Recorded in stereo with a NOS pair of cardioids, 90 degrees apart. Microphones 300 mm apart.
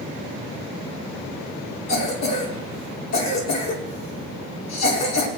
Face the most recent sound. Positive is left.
turn(degrees=60)